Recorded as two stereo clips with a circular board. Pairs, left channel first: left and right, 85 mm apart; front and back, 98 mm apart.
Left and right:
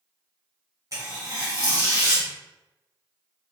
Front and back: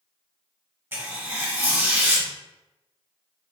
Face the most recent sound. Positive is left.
turn(degrees=-115)